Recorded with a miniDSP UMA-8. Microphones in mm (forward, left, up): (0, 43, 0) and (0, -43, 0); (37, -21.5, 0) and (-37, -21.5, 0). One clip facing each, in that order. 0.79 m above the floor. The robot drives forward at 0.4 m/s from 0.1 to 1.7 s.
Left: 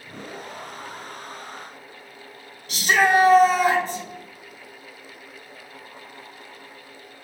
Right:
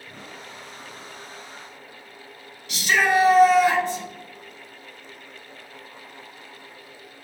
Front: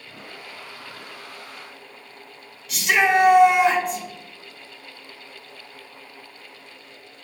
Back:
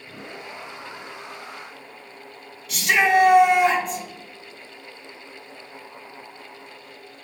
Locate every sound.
2.7 s a shout: 90° left, 1.2 m